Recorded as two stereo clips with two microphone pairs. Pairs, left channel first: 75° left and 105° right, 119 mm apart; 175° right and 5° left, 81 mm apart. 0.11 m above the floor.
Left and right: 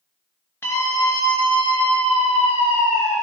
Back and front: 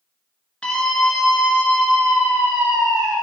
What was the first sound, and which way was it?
A scream, 115° left.